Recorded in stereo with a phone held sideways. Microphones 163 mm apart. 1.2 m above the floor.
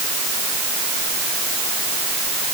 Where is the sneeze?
No sneeze in this recording.